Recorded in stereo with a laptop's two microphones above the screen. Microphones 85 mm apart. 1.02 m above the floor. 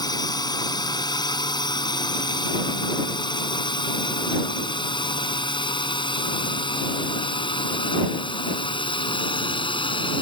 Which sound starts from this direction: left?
A drone, at 0.0 s.